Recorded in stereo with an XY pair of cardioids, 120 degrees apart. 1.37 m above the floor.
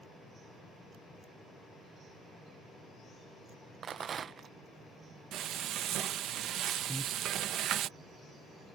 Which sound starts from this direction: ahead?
Breathing, at 6.9 s.